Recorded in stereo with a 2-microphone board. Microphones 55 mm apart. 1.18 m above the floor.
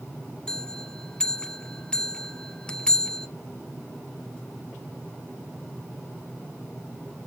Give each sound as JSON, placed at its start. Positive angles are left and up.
{"t": 0.5, "sound": "a bell", "side_deg": 15, "distance_m": 0.5}